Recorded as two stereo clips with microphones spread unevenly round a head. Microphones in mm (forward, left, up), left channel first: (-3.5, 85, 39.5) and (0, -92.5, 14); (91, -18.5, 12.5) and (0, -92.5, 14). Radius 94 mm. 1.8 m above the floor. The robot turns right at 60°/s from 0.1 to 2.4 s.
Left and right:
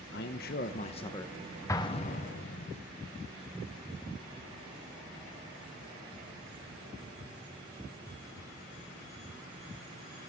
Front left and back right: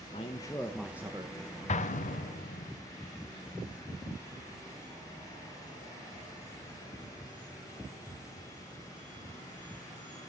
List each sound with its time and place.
0.1 s a man speaking: 90° left, 1.3 m; by 1.4 s 165° left, 1.3 m
1.7 s an explosion: 15° left, 1.6 m; by 2.7 s 60° left, 1.6 m